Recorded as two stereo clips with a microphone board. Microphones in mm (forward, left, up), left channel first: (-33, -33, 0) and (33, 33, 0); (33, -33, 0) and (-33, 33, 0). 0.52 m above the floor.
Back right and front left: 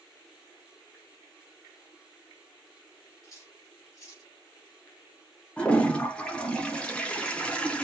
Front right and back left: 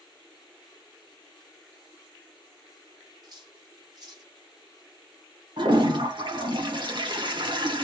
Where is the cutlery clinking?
175° left, 1.1 m.